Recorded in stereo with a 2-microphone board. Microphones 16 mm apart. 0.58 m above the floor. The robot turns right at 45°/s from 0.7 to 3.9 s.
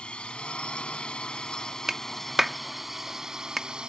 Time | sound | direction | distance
0.0 | a drone | 90° left | ?
1.9 | a clap | 25° right (ahead or behind) | ?